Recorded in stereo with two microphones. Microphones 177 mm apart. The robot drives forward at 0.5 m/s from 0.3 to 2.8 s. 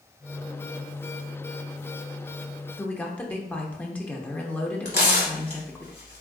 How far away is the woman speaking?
About 0.6 m.